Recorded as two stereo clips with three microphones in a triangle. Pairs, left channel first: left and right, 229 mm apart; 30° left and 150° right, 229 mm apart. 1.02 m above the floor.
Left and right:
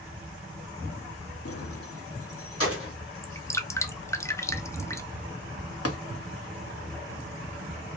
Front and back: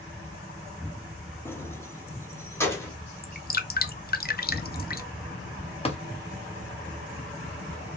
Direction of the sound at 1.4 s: 110° left.